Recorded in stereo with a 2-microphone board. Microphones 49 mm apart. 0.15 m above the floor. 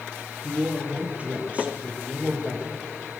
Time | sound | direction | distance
0.4 | a man speaking | 30° right (ahead or behind) | 4 m